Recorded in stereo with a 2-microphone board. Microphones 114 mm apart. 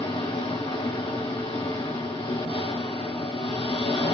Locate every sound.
0.0 s an engine running: 50° left (ahead or behind), 2.5 m